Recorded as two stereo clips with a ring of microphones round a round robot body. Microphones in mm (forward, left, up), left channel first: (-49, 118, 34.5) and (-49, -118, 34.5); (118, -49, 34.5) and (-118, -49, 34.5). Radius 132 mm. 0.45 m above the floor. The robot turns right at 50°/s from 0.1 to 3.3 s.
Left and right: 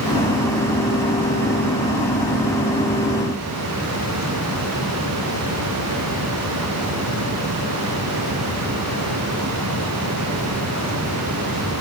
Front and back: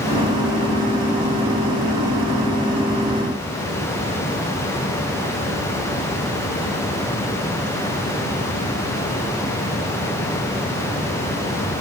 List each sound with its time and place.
Only background noise.